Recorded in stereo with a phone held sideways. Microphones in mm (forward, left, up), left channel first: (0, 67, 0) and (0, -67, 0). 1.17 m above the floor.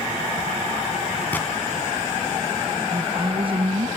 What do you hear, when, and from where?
1.3 s a gunshot: 15° left (ahead or behind), 2.5 m
2.9 s a woman speaking: 45° right (ahead or behind), 0.5 m